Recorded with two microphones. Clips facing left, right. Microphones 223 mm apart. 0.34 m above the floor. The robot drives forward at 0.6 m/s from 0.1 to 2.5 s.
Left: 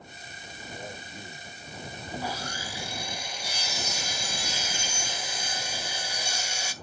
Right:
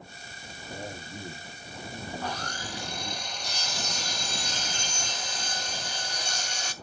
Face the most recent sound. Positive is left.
turn(degrees=10)  # may be behind; listen again after turning